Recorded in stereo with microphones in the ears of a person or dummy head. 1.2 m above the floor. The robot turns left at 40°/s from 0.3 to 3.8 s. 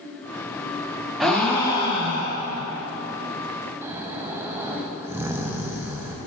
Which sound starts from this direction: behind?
A gasp, at 1.2 s.